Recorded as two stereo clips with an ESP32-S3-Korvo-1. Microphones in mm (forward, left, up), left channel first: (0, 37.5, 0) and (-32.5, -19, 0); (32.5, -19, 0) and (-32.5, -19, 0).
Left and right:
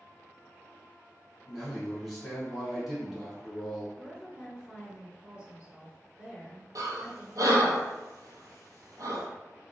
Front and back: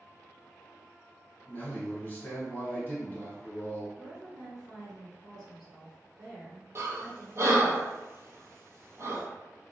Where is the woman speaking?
90° right, 1.7 m.